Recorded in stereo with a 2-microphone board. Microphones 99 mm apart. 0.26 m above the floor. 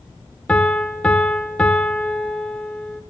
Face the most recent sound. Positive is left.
turn(degrees=10)  # may be behind; listen again after turning